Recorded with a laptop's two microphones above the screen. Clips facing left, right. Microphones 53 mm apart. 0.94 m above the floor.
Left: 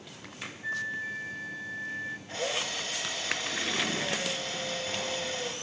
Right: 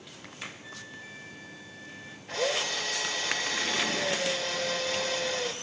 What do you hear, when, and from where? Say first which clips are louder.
0.6 s a flute: left 11 dB; 35° left (ahead or behind), 0.6 m
2.3 s a drill: right 6 dB; 85° right, 3 m